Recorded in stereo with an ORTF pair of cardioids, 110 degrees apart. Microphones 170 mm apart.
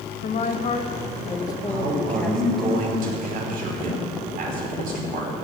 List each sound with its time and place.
0.2 s a woman speaking: 45° left, 1.8 m; by 2.7 s straight ahead, 2 m
1.7 s a man speaking: 55° right, 5 m